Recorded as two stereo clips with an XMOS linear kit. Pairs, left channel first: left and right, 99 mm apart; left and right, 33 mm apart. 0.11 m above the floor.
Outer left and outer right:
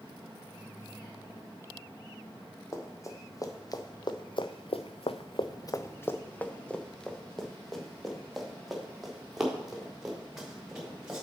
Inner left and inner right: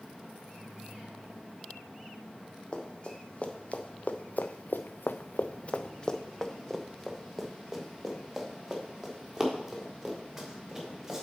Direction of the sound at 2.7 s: 30° left (ahead or behind).